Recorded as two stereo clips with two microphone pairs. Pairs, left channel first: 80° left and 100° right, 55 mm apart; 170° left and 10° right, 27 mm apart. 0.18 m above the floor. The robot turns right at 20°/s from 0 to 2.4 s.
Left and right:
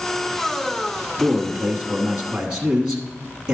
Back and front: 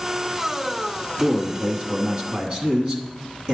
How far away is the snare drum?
I don't hear a snare drum.